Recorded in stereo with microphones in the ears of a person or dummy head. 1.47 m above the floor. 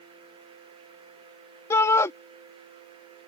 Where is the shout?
15° left (ahead or behind).